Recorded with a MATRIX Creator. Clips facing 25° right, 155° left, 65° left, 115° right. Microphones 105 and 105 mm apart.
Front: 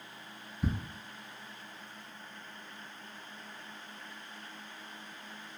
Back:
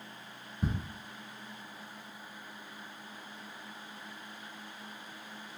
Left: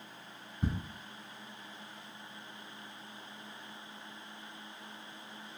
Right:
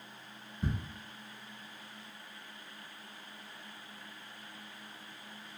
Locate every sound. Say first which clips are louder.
0.6 s ticking: even, left 2 dB; 125° left, 1.1 m